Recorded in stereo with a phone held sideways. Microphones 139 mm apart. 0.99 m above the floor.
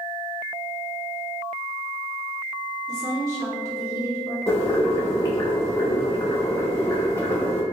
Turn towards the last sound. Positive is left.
turn(degrees=20)  # may be behind; listen again after turning